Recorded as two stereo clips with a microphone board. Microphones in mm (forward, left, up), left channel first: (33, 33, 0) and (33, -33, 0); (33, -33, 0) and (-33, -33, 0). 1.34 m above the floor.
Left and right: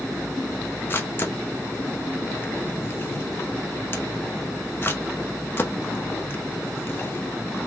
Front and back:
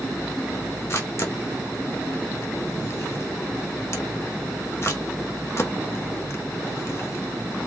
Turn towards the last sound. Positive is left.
turn(degrees=40)